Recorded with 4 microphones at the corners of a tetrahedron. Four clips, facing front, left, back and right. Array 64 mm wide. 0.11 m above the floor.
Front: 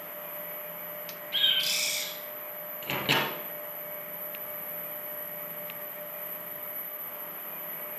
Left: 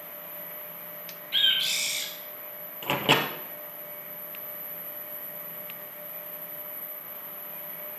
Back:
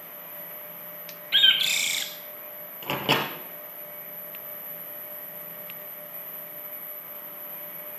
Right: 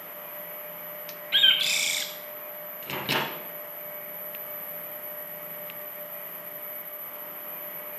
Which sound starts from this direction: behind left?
A microwave, at 2.8 s.